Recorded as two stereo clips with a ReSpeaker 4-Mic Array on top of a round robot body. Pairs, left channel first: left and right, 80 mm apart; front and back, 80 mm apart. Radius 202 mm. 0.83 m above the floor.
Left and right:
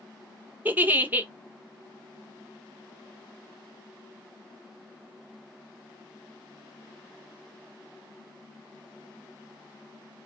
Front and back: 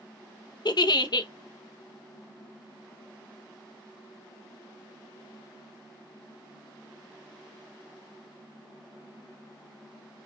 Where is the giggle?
25° right, 0.9 m.